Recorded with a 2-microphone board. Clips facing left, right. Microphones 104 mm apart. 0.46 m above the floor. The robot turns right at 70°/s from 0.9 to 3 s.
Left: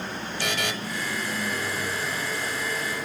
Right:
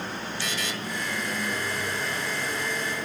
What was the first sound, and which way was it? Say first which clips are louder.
A buzzer: left 6 dB; 60° left (ahead or behind).